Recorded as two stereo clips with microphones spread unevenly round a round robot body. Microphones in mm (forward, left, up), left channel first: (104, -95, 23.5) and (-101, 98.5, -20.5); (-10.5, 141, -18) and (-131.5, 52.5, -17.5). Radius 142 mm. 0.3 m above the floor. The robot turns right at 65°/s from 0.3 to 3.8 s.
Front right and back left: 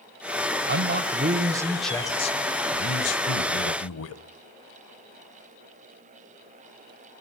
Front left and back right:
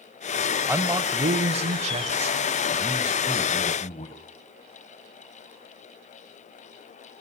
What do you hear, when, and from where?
0.7 s a man speaking: 145° left, 1.4 m; by 4.2 s 15° right, 1.4 m